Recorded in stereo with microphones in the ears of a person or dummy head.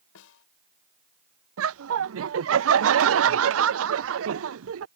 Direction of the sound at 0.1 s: 85° left.